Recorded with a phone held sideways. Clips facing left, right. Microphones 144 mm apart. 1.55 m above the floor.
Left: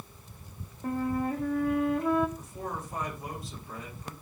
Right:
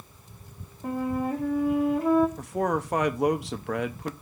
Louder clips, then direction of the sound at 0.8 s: Right 2 dB; 5° right (ahead or behind).